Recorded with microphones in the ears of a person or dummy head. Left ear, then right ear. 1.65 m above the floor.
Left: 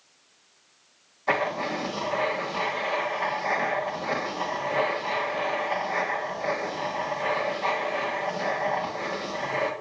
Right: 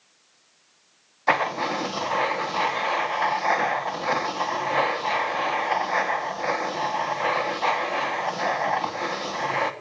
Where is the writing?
45° right (ahead or behind), 1.4 m.